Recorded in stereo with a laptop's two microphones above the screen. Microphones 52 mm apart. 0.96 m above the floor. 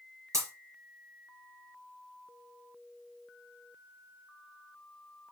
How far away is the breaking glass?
About 4 m.